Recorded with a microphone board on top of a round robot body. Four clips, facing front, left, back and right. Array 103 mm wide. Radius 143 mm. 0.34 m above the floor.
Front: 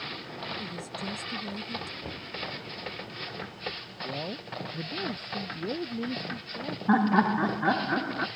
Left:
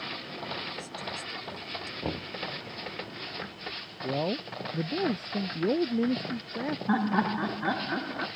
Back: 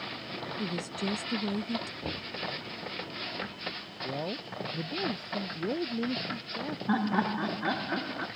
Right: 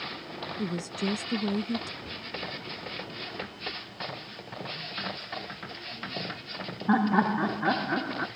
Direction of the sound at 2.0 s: 105° left.